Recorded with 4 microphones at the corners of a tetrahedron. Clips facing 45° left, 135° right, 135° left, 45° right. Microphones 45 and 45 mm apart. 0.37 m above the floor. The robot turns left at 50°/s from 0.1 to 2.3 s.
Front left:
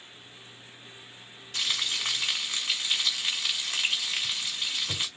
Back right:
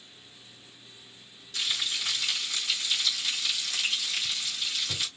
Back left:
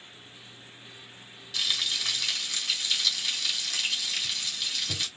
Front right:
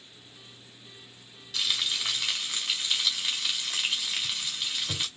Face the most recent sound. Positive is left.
turn(degrees=10)